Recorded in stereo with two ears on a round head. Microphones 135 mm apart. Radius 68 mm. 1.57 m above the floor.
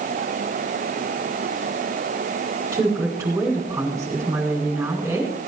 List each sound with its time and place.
2.7 s a woman speaking: 20° right (ahead or behind), 7.5 m